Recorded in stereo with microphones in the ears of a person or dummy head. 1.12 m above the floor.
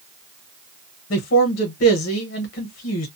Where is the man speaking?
55° left (ahead or behind), 0.7 m.